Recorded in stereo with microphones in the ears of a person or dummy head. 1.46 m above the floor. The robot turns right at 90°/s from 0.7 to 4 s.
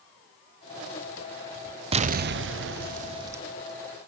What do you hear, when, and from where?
1.9 s an explosion: 145° right, 0.7 m; by 3.4 s 10° right, 0.7 m